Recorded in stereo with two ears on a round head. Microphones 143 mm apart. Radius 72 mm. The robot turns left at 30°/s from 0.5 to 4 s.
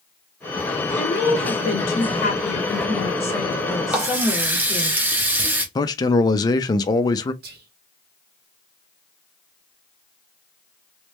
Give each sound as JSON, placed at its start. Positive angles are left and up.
{"t": 0.9, "sound": "a woman speaking", "azimuth_deg": 85, "distance_m": 1.8}
{"t": 3.9, "sound": "a running tap", "side_deg": -10, "distance_m": 0.8}
{"t": 5.8, "sound": "a man speaking", "side_deg": 25, "distance_m": 0.5}
{"t": 7.4, "sound": "whispering", "side_deg": -65, "distance_m": 1.4}